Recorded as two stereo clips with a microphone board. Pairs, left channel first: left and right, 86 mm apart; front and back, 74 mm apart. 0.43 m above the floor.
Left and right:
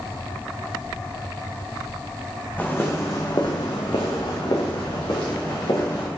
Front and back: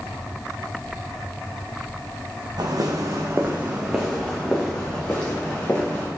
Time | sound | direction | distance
2.6 | footsteps | 160° left | 1.7 m